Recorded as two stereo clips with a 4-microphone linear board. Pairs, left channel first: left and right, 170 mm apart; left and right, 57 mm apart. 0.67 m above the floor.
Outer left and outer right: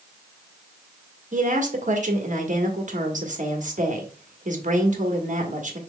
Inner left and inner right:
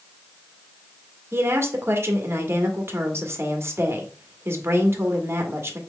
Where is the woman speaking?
45° right (ahead or behind), 1.3 m.